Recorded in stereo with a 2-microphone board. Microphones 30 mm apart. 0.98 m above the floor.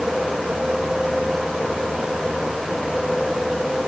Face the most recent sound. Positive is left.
No sound to turn to.